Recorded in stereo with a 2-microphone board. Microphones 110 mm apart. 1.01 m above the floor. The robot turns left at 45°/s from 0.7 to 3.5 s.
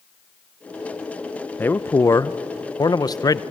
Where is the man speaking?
150° left, 0.5 m; by 3.4 s 70° left, 0.5 m.